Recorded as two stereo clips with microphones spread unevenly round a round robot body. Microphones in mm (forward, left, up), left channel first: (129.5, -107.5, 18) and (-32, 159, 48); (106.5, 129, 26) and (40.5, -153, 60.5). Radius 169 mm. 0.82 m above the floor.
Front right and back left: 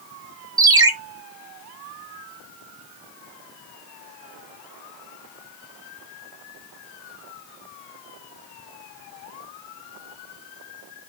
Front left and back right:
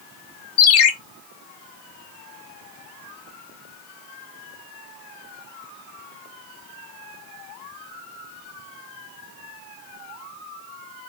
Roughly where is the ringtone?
Ahead left.